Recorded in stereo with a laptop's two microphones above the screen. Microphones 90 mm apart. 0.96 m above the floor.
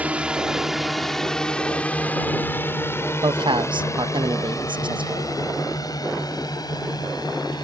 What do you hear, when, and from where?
0.0 s a drone: 15° right (ahead or behind); by 7.7 s 55° left (ahead or behind)
3.2 s a man speaking: 65° right (ahead or behind)